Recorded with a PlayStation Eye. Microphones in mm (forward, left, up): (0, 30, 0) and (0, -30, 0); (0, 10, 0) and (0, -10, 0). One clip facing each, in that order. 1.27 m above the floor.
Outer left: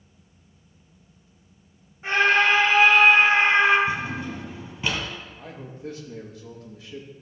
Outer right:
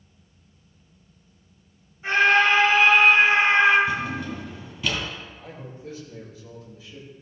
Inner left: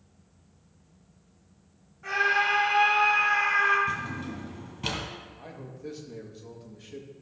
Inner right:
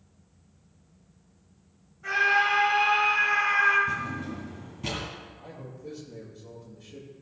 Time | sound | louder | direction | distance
2.0 | a scream | outer right 1 dB, inner right 1 dB | 25° left (ahead or behind) | 3 m
3.9 | a drawer | outer right 1 dB, inner right 1 dB | 30° left (ahead or behind) | 2.5 m
5.4 | a man speaking | outer left 1 dB, inner left 1 dB | 60° left (ahead or behind) | 1.8 m